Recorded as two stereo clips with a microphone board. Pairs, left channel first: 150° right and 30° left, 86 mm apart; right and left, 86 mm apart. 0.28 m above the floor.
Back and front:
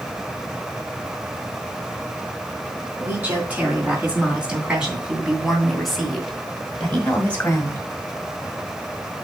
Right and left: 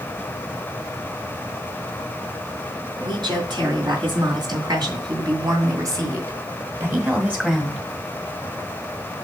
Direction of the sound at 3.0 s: 100° left.